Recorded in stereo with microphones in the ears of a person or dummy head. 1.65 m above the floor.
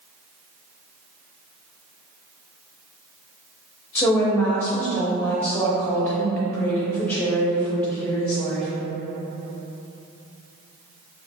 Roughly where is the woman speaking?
Centre.